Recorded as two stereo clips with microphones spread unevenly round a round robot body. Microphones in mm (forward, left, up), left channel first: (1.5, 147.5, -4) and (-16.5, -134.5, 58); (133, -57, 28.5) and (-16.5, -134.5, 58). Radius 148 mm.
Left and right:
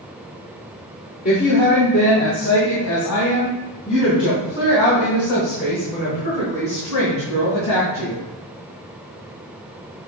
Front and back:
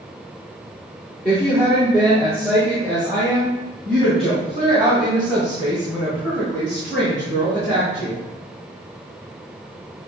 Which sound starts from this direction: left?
A woman speaking, at 1.2 s.